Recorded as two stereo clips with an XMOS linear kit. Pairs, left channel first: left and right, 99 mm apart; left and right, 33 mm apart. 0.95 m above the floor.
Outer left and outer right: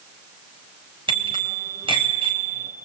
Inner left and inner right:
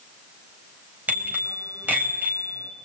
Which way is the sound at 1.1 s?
60° right (ahead or behind).